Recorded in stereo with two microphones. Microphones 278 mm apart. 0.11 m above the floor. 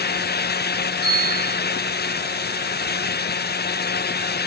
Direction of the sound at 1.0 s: 30° right (ahead or behind).